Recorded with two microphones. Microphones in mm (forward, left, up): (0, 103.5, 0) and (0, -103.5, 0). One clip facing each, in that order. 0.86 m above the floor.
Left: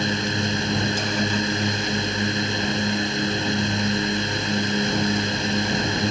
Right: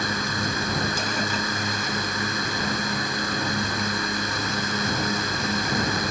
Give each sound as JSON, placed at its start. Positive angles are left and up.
{"t": 0.0, "sound": "a drone", "side_deg": 25}